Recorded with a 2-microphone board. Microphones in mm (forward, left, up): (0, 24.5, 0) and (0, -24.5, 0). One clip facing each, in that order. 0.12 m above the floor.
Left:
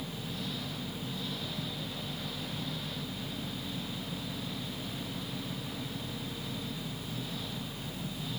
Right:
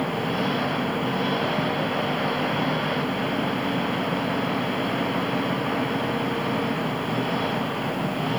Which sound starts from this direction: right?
An engine running, at 0.0 s.